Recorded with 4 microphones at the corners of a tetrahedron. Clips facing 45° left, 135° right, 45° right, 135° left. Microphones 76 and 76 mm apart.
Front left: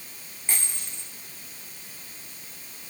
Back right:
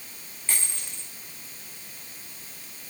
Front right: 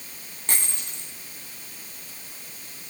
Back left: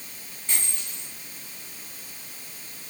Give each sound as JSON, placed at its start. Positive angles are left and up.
{"t": 0.5, "sound": "a dropped coin", "azimuth_deg": -30, "distance_m": 5.0}